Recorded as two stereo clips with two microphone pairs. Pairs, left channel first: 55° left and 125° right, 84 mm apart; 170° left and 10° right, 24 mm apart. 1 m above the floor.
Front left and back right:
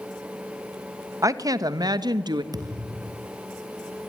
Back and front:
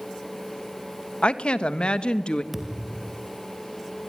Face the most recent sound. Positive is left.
turn(degrees=-90)